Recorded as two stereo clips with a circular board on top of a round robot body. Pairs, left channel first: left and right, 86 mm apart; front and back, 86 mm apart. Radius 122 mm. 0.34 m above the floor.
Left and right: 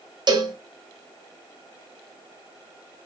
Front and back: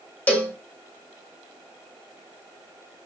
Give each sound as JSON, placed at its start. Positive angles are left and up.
{"t": 0.3, "sound": "a cowbell", "azimuth_deg": -70, "distance_m": 1.1}